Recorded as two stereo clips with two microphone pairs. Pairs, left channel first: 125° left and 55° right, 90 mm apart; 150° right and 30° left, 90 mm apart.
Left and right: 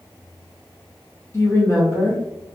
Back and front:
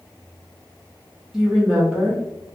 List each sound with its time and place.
1.3 s a woman speaking: 110° left, 0.7 m